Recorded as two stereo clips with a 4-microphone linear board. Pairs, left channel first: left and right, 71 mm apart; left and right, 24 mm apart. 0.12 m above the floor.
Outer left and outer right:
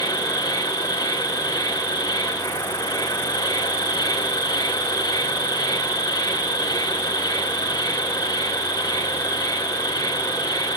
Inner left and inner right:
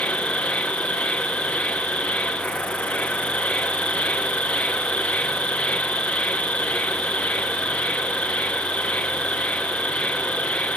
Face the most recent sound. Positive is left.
turn(degrees=75)  # may be behind; listen again after turning